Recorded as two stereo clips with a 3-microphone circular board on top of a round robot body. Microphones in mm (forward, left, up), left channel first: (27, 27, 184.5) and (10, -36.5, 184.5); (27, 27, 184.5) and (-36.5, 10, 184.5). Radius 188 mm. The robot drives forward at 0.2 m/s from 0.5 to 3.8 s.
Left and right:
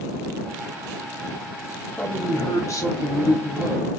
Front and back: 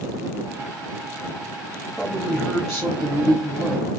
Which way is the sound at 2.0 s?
90° left.